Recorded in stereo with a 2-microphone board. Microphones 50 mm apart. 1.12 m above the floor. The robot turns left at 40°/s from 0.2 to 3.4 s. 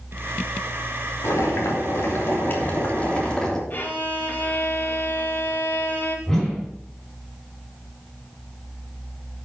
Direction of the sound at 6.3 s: 5° left (ahead or behind).